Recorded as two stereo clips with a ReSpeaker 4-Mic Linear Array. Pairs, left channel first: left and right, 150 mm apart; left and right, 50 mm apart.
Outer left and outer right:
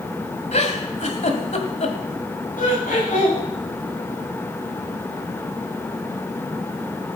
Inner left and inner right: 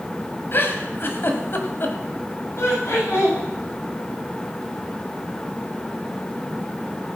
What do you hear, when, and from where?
0.5 s a giggle: 50° left (ahead or behind), 1.5 m
2.6 s laughter: 65° left (ahead or behind), 8.5 m